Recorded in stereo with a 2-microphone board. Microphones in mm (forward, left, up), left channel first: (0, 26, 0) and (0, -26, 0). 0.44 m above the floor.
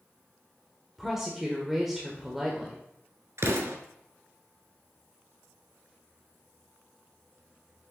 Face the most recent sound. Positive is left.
turn(degrees=-65)  # may be behind; listen again after turning